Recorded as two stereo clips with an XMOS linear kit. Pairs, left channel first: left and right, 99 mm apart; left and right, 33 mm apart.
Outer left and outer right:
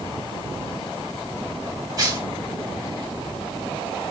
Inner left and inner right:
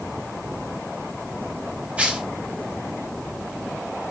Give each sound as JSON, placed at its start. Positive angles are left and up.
{"t": 2.0, "sound": "tearing paper", "side_deg": -40, "distance_m": 1.3}